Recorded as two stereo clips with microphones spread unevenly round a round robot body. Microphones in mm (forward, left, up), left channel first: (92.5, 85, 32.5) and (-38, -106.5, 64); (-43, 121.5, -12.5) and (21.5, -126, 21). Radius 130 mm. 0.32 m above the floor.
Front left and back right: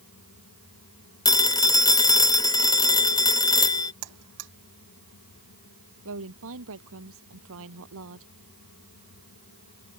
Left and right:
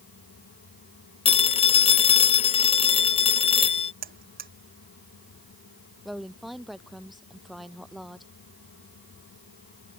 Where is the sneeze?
No sneeze in this recording.